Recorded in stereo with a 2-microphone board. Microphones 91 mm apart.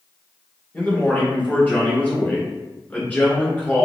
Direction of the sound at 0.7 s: 20° left (ahead or behind).